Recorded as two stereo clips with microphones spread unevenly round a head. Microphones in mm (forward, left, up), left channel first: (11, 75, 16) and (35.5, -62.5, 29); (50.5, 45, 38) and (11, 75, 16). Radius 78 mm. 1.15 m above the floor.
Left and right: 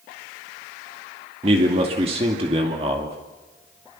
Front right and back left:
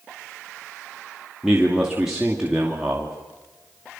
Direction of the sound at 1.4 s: 135° right.